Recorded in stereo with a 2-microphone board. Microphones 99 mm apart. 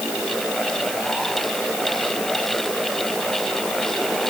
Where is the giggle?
No giggle in this recording.